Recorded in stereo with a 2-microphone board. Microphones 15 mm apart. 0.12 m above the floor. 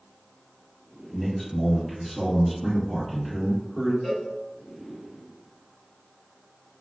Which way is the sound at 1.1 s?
5° right (ahead or behind).